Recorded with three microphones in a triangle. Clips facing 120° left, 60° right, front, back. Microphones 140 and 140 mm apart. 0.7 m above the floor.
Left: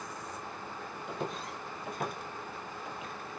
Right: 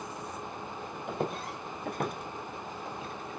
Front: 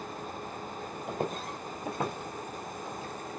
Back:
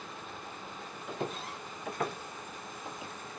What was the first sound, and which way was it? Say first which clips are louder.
Footsteps: right 4 dB, front 3 dB; 35° right.